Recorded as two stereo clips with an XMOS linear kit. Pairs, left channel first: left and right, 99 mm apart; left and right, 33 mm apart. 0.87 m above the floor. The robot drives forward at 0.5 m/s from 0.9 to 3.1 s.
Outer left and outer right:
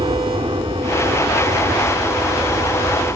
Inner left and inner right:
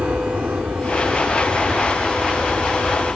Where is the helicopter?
55° right (ahead or behind); by 3.2 s 50° right (ahead or behind).